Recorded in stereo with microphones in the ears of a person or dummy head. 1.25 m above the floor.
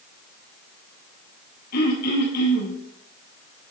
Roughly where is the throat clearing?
Left.